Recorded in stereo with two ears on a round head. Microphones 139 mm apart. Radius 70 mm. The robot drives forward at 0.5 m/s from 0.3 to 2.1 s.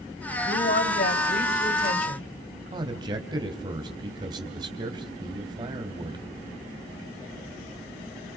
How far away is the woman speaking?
About 3.5 m.